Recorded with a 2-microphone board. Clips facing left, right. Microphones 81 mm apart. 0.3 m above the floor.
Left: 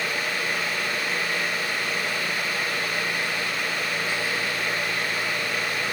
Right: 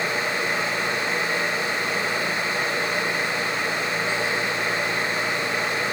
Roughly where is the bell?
No bell in this recording.